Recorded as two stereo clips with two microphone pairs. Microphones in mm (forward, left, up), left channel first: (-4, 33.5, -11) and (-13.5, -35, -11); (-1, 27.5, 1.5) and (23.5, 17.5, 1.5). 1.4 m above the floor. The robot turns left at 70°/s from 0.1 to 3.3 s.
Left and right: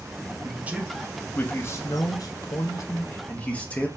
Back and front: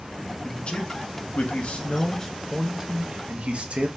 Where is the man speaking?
145° right, 0.8 m; by 3.9 s 15° left, 0.8 m.